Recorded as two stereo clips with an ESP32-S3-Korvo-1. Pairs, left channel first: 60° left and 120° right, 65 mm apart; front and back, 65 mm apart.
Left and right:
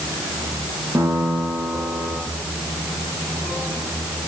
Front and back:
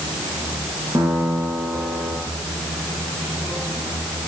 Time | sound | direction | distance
0.9 | a piano | 155° right | 4.5 m